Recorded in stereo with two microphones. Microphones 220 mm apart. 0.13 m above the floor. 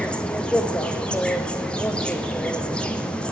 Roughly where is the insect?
Centre.